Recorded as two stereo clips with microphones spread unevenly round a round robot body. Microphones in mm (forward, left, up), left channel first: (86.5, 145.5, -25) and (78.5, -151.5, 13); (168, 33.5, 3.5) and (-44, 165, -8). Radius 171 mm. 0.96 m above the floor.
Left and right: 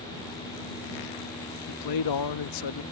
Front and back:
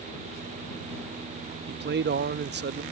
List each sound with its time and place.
1.7 s a man speaking: 100° left